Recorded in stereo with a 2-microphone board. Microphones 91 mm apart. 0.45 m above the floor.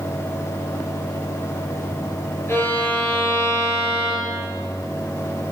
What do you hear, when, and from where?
2.5 s a violin: 30° left (ahead or behind), 4 m